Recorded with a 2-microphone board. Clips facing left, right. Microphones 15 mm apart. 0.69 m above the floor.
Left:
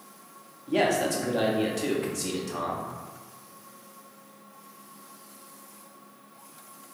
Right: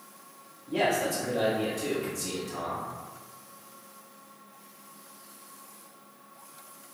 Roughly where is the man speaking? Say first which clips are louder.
Left 2 dB; left.